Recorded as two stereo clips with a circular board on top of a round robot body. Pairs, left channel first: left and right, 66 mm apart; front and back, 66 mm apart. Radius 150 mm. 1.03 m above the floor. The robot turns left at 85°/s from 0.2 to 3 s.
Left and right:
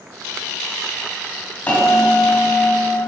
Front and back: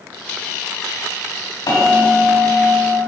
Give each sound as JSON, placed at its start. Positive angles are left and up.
{"t": 1.7, "sound": "a bell", "azimuth_deg": 20, "distance_m": 3.5}